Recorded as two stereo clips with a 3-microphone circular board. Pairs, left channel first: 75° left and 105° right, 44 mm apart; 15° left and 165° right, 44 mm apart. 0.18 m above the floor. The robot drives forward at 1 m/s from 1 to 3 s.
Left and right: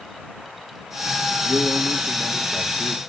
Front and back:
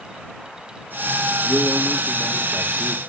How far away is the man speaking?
About 5 m.